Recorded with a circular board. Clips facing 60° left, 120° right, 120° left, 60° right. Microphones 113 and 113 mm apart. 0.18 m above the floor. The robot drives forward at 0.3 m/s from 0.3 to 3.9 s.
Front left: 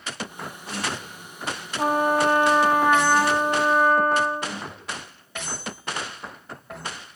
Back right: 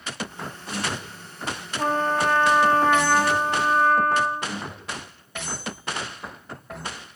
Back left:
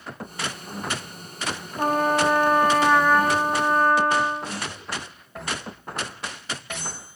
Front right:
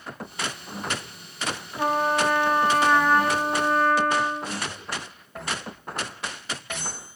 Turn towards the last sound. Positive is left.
turn(degrees=145)